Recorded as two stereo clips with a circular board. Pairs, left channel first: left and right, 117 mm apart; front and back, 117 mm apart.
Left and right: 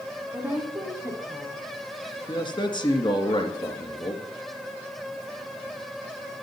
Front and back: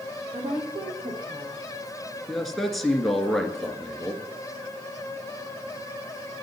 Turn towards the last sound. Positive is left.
turn(degrees=85)